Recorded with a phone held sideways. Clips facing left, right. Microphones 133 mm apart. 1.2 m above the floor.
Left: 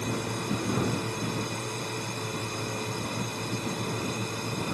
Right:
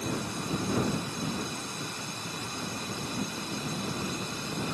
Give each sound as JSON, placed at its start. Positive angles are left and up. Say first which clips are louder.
{"t": 0.0, "sound": "a drone", "louder": "left 2 dB", "side_deg": 65}